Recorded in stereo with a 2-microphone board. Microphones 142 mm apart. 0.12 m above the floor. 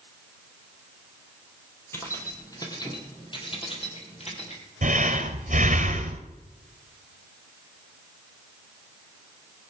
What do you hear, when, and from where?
1.9 s keys jangling: 20° left (ahead or behind), 3 m; by 4.6 s 50° left (ahead or behind), 3.5 m
4.8 s breathing: 60° right (ahead or behind), 1.6 m